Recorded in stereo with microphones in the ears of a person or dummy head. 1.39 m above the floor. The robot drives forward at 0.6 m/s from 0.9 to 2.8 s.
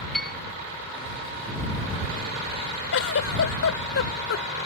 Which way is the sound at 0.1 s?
Centre (ahead or behind).